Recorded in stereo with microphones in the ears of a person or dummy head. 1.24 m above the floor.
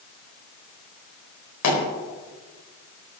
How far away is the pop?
About 4.5 m.